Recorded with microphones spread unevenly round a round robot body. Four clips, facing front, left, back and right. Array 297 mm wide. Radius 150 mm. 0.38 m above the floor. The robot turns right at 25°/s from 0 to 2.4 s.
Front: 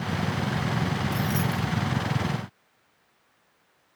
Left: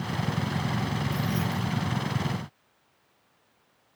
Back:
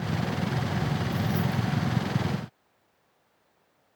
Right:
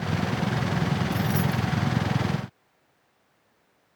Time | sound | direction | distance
1.1 | keys jangling | 30° right | 0.8 m